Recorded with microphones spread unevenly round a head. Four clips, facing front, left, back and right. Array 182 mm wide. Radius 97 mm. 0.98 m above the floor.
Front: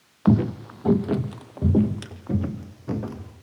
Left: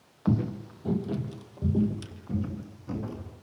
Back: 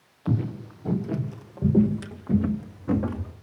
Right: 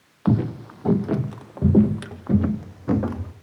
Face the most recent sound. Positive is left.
turn(degrees=-95)